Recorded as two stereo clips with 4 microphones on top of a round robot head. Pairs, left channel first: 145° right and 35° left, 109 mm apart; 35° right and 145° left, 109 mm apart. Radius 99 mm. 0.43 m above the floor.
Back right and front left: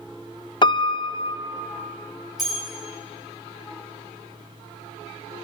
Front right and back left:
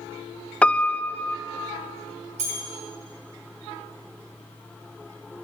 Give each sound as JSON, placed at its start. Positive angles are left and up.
{"t": 0.6, "sound": "a piano", "azimuth_deg": -115, "distance_m": 0.5}
{"t": 2.4, "sound": "a bell", "azimuth_deg": 125, "distance_m": 6.5}